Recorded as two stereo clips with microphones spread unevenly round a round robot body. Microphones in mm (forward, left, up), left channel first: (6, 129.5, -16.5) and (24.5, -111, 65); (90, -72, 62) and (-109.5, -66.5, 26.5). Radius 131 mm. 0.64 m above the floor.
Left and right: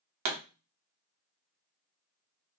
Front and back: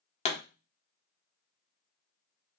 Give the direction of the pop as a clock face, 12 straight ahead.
2 o'clock.